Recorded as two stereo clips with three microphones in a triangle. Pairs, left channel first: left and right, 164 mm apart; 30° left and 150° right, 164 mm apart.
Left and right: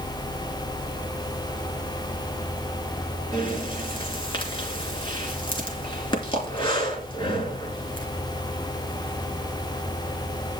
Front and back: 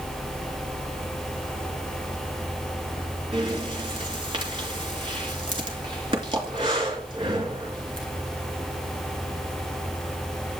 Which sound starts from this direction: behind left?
Breathing, at 3.3 s.